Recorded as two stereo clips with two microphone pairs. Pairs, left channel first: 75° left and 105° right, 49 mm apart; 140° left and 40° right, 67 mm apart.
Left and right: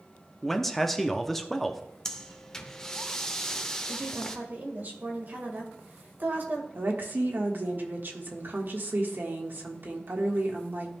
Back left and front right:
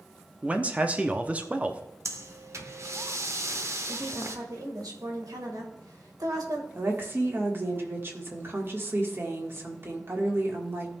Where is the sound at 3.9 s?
55° right, 2.0 m.